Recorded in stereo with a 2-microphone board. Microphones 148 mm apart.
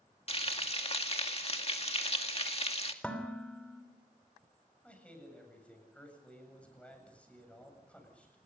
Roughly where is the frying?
Left.